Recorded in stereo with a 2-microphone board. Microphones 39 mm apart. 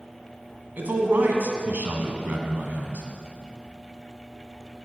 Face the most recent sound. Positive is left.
turn(degrees=-55)  # may be behind; listen again after turning